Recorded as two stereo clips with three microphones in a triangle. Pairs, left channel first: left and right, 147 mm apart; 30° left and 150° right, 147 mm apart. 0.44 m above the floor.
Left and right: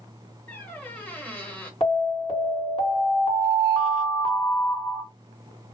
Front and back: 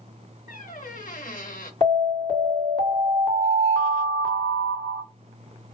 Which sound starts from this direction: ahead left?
An alarm, at 1.8 s.